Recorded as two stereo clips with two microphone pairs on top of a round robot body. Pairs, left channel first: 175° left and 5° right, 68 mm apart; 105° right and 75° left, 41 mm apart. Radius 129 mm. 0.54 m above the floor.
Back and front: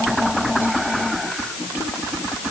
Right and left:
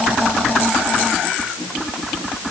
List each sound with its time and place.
Only background noise.